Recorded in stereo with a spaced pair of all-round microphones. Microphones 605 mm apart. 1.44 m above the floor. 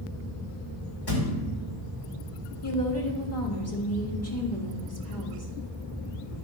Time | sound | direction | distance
1.1 | a thud | 40° left (ahead or behind) | 2.5 m
2.6 | a woman speaking | 25° left (ahead or behind) | 2.5 m